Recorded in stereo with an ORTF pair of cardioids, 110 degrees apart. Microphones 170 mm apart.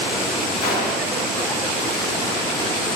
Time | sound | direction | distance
0.6 | a gunshot | 55° left | 1.5 m